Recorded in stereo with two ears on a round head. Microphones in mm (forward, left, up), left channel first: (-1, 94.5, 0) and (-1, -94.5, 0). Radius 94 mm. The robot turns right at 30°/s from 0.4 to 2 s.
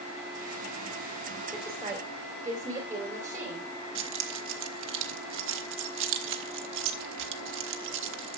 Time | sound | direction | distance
1.5 | a woman speaking | centre (ahead or behind) | 3 m
4.0 | keys jangling | 65° right (ahead or behind) | 1.2 m